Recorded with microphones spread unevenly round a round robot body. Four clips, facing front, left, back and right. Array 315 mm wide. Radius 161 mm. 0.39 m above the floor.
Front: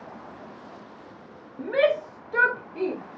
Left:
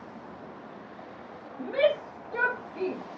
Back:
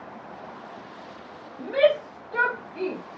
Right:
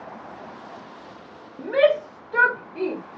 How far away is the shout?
About 1.6 m.